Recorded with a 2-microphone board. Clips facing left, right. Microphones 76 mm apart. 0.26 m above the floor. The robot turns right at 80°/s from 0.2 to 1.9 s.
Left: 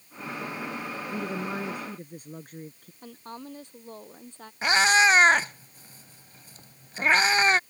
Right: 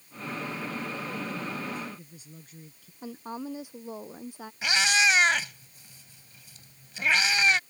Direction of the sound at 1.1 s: 60° left.